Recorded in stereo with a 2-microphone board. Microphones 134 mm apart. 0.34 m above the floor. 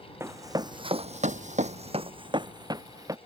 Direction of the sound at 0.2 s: 20° right (ahead or behind).